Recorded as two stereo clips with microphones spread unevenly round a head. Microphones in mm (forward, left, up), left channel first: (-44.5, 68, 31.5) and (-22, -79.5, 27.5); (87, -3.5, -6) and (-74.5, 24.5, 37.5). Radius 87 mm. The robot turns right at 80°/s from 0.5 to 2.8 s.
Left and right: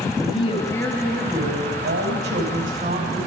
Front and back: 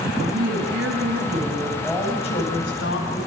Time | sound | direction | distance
0.2 | a woman speaking | 150° left | 10 m